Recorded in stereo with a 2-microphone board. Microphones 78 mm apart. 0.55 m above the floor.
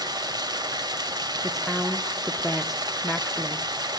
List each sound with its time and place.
0.0 s running water: 60° right (ahead or behind), 1.6 m
1.4 s a woman speaking: 5° right (ahead or behind), 0.9 m